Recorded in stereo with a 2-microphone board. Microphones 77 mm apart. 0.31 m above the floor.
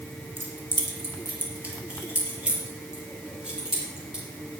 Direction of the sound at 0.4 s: 30° right (ahead or behind).